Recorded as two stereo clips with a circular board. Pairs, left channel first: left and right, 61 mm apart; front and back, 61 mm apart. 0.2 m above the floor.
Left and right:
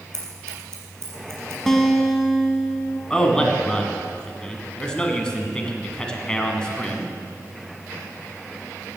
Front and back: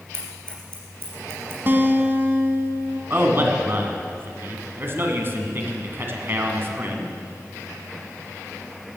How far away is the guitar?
About 1.3 m.